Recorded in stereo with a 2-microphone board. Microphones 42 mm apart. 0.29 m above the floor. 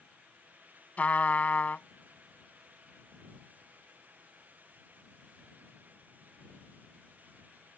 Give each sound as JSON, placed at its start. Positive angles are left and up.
{"t": 1.0, "sound": "a trumpet", "side_deg": 40}